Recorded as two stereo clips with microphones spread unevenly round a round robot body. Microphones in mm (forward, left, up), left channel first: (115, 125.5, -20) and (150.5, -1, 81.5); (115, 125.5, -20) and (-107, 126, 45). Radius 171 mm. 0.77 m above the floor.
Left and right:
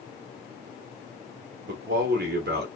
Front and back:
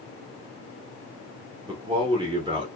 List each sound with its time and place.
1.7 s a man speaking: 100° right, 0.8 m